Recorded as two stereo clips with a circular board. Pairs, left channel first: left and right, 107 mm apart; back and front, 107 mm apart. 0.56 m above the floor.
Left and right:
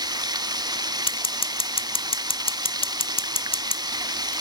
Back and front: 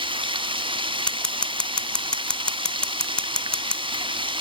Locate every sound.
0.0 s running water: 40° right, 1.0 m
1.1 s scissors: 100° left, 0.6 m